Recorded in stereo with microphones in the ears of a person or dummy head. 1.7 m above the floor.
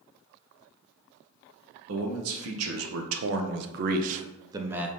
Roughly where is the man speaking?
Right.